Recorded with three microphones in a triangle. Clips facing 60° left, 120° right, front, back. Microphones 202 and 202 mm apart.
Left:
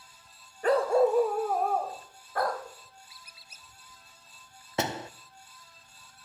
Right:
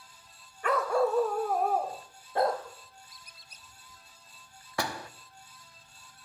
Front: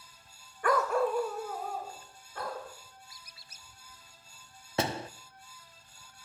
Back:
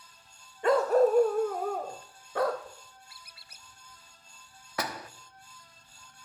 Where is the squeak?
145° left, 1.0 m.